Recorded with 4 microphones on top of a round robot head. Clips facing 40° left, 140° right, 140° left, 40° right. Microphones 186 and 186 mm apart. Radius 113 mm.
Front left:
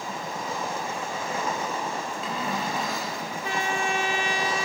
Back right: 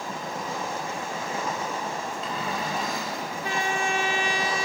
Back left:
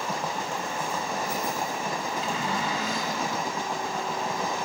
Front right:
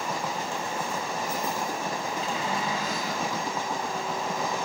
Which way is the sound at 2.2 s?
130° left.